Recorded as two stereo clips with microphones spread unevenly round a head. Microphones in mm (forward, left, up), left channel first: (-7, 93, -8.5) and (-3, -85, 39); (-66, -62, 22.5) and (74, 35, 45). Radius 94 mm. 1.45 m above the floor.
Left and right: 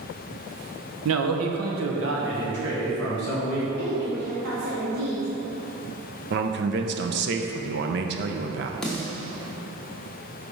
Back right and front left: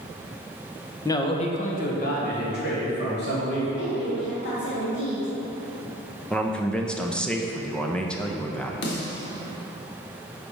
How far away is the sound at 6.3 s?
About 0.6 m.